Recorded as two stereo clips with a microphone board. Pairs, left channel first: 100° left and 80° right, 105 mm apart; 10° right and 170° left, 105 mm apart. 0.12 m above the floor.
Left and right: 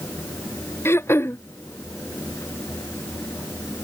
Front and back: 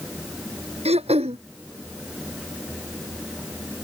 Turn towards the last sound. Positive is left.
turn(degrees=170)